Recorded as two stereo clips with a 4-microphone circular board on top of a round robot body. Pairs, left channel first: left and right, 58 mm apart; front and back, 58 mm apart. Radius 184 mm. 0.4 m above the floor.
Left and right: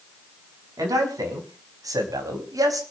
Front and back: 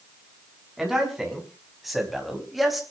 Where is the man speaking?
95° right, 6 m; by 2.8 s 90° right, 3.5 m.